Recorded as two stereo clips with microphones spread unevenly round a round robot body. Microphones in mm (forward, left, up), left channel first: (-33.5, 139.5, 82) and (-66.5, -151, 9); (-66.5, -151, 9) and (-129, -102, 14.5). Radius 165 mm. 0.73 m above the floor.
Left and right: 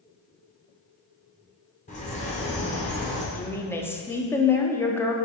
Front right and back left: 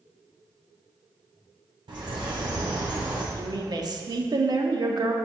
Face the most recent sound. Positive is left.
turn(degrees=175)